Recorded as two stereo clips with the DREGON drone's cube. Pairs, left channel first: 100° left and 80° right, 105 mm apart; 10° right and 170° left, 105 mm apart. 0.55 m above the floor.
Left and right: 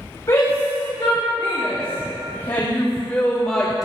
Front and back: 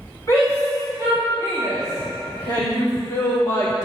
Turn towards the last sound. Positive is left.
turn(degrees=5)